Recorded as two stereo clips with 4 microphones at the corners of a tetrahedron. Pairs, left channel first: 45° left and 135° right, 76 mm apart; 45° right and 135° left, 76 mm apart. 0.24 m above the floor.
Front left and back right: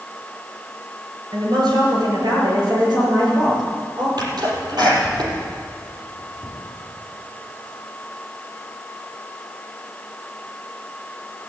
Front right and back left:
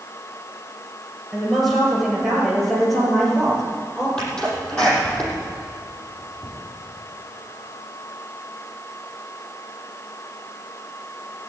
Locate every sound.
1.3 s a woman speaking: 135° right, 5 m; by 4.1 s 125° right, 6 m
4.2 s a sneeze: 120° right, 6 m